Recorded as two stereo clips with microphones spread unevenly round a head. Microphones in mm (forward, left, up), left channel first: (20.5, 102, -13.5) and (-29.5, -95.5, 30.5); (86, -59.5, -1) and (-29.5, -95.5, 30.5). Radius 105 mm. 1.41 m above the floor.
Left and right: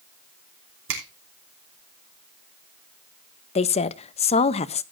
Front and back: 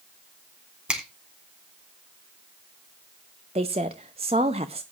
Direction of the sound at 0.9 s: 85° right.